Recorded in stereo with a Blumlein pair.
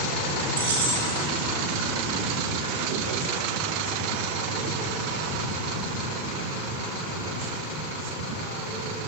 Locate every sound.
0.6 s keys jangling: 65° right, 2.5 m